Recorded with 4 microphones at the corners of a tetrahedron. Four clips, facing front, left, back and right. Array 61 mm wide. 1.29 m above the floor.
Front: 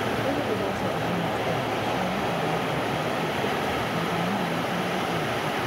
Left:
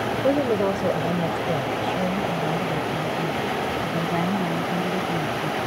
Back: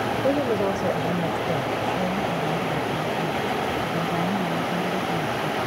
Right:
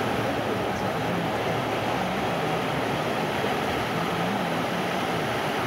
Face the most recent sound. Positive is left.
turn(degrees=110)